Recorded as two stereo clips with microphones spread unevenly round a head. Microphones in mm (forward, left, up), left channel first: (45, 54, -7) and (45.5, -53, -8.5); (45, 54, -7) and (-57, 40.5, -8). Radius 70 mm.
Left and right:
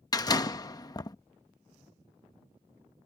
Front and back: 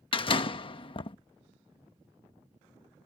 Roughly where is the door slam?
Ahead left.